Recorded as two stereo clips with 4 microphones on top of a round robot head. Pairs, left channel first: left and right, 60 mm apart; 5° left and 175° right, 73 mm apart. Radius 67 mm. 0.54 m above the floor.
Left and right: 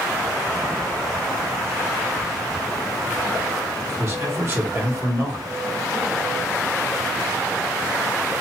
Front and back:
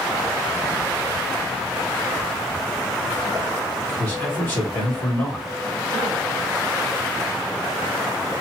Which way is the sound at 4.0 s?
55° right.